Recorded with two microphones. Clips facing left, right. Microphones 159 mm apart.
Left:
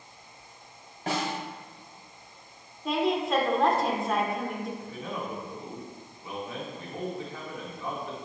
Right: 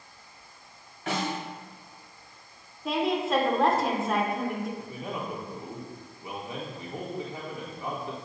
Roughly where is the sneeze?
No sneeze in this recording.